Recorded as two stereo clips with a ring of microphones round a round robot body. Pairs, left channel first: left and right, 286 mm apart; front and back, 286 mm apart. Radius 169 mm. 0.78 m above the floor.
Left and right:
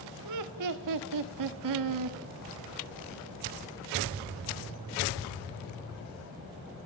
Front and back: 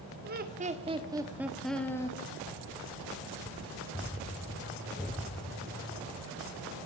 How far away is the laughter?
About 1.5 m.